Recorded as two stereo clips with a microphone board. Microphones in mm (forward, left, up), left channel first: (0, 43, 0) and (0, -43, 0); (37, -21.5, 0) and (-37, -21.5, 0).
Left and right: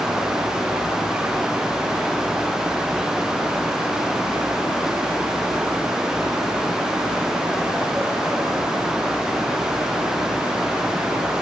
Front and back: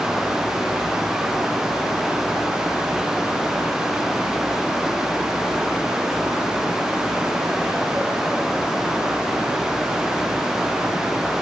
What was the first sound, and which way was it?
Only background noise.